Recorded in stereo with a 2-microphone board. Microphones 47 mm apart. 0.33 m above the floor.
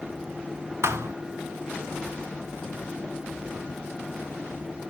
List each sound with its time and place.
0.8 s a thud: 70° right (ahead or behind), 1.2 m